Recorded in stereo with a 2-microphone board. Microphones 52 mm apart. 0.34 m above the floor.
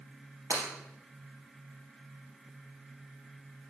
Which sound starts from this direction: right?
Breaking glass, at 0.5 s.